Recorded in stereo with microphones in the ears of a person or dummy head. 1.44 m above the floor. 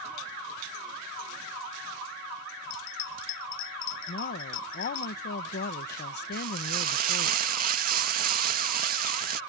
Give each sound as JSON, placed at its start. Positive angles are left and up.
{"t": 2.7, "sound": "a bell", "side_deg": 40}
{"t": 4.1, "sound": "a woman speaking", "side_deg": 45}
{"t": 6.3, "sound": "frying", "side_deg": -45}